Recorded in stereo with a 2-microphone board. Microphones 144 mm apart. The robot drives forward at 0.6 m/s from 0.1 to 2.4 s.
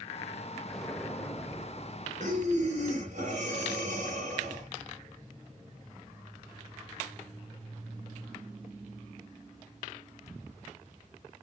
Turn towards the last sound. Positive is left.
turn(degrees=-55)  # may be behind; listen again after turning